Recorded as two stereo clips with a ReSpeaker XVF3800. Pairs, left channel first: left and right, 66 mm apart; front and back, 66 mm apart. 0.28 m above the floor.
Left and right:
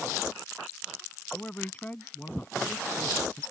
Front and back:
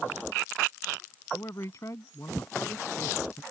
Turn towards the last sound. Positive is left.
turn(degrees=25)